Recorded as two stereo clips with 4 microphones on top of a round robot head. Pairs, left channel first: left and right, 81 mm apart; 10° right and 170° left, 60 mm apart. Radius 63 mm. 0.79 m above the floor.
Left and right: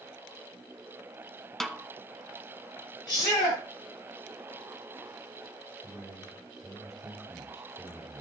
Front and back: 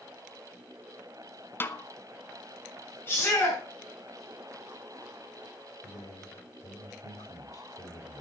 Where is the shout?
50° left, 7 m.